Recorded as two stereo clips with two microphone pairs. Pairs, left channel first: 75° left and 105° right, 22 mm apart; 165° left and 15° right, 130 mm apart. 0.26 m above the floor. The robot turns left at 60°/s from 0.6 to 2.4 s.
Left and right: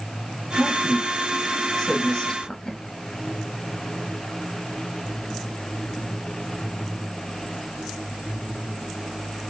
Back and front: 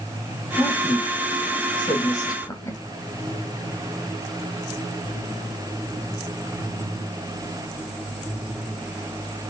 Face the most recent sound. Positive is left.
turn(degrees=115)